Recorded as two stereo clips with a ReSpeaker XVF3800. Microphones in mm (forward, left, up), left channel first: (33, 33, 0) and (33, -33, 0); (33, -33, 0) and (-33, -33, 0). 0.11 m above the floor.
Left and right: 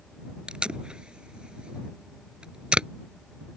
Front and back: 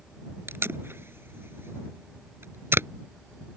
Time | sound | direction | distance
0.5 | tape being pulled | 160° right | ?